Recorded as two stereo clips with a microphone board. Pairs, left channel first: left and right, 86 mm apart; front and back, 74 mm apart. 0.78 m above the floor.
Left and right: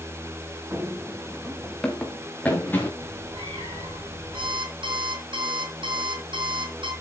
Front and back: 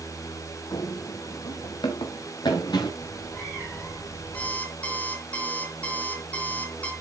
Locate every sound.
0.7 s running footsteps: 30° right, 2.5 m; by 2.9 s 25° left, 4 m
3.0 s a cat meowing: 70° right, 5 m
4.3 s an alarm clock: 75° right, 3.5 m